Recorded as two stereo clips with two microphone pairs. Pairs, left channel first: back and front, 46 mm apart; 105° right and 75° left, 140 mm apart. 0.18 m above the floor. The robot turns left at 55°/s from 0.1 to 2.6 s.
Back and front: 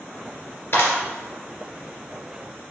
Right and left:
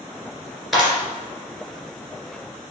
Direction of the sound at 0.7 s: 165° left.